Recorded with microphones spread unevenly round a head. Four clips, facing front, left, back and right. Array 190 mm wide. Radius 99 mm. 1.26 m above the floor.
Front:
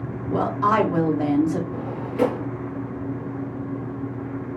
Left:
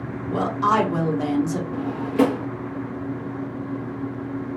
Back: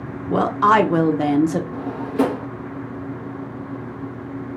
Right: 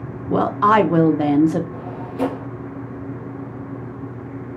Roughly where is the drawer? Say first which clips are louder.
Left 6 dB, back 3 dB; behind left.